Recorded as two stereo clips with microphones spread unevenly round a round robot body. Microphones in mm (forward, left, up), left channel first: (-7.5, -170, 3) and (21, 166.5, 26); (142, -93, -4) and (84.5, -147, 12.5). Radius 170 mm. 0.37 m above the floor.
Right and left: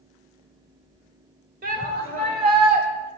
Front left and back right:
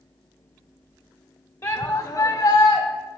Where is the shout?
20° left, 1.5 m.